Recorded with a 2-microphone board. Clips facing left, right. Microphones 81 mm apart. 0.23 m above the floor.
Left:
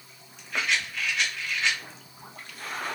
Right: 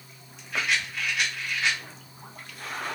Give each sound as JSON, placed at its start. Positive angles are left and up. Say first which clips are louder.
{"t": 0.5, "sound": "a rattle", "louder": "even", "side_deg": -10, "distance_m": 1.7}